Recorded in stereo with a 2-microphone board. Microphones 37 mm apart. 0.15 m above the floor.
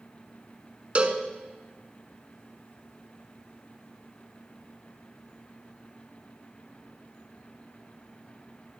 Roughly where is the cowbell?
Right.